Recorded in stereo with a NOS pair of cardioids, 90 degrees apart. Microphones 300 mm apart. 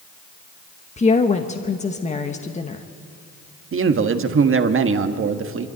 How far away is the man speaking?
About 1.5 m.